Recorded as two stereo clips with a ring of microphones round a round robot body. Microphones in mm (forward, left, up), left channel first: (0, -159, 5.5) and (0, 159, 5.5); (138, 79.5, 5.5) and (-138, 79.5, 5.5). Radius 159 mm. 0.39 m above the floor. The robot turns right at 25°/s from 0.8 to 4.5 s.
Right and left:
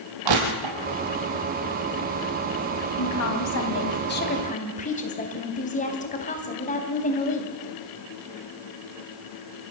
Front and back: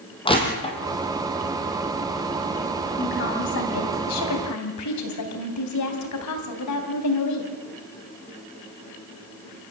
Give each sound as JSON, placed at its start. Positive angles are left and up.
{"t": 0.2, "sound": "crushing", "azimuth_deg": 70, "distance_m": 4.0}
{"t": 3.0, "sound": "a woman speaking", "azimuth_deg": -65, "distance_m": 3.5}